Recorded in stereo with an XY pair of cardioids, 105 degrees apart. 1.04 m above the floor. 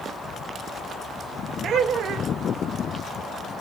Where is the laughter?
65° right, 1.2 m.